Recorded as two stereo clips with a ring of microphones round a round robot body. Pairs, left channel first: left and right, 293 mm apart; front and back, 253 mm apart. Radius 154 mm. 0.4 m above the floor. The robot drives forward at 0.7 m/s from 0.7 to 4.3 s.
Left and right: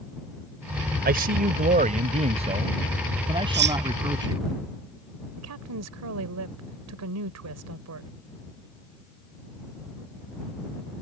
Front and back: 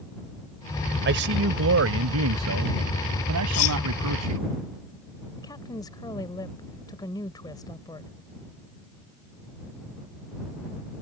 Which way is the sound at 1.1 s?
140° right.